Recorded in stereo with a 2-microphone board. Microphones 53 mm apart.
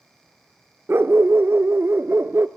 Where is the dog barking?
55° right (ahead or behind), 0.5 m.